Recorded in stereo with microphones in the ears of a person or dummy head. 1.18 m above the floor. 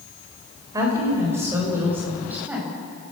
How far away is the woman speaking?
About 4.5 m.